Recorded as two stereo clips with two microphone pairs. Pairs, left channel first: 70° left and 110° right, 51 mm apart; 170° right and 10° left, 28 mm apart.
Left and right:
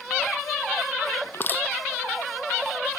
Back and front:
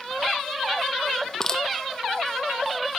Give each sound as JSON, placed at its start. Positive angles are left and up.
{"t": 1.3, "sound": "crushing", "azimuth_deg": 120}